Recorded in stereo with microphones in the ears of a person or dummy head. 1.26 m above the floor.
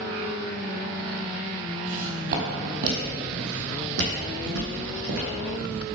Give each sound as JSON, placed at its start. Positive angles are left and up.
{"t": 1.9, "sound": "footsteps", "side_deg": -45, "distance_m": 1.8}